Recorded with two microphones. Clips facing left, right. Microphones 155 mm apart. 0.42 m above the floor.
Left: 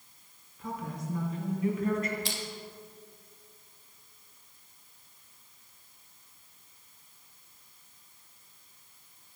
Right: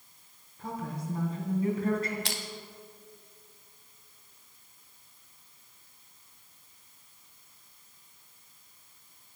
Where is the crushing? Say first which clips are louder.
Even; 80° right, 1.0 m.